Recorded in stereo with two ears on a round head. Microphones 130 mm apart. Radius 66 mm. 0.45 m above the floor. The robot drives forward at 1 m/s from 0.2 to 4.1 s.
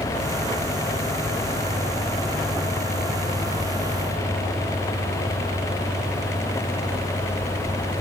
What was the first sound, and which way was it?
Only background noise.